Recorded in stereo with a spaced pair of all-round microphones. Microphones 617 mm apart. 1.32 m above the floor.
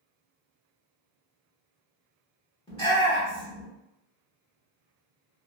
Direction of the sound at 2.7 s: 10° left (ahead or behind).